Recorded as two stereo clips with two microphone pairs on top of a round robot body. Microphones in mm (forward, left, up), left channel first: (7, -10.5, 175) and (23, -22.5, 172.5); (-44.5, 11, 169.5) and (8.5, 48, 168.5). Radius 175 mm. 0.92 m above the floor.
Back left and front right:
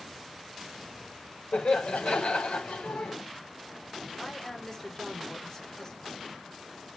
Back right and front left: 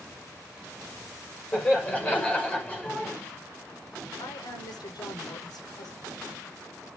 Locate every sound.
1.5 s laughter: 145° left, 4.5 m
4.2 s a woman speaking: 150° right, 5 m